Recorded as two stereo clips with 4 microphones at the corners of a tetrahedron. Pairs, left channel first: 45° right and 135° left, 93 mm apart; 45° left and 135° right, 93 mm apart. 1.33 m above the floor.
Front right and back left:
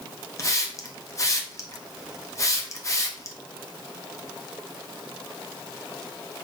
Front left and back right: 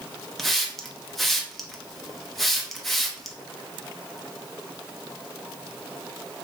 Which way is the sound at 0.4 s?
40° right.